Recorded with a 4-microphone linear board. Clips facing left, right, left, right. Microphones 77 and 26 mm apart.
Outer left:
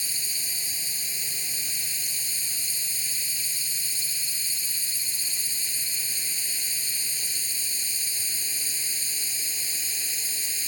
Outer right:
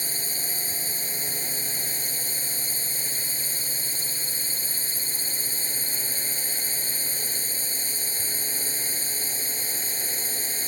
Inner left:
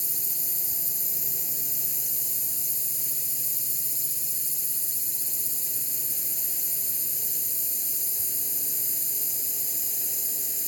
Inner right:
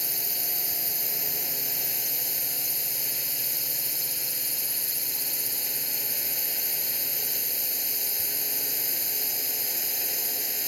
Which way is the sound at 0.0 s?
40° right (ahead or behind).